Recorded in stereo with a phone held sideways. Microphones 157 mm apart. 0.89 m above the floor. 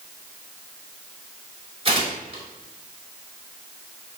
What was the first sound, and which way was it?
Tearing paper, 40° right (ahead or behind).